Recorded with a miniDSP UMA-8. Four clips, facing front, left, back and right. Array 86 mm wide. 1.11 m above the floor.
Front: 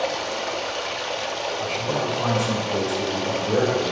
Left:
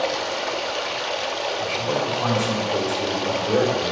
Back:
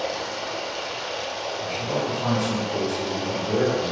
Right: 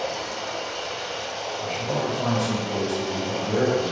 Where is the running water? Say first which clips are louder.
Left 5 dB, front 3 dB; 65° left, 0.8 m.